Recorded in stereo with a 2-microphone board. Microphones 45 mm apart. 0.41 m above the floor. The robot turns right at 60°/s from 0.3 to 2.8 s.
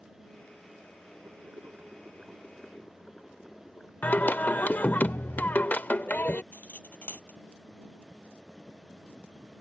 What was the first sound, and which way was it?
Boiling, 75° right.